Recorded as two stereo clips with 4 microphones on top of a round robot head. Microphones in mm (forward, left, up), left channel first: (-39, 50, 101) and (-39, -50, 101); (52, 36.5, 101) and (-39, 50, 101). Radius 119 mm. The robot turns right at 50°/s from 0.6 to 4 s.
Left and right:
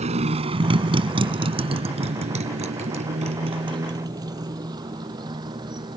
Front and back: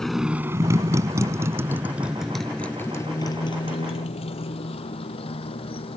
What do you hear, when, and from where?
0.0 s a motorcycle: 95° right; by 6.0 s 40° right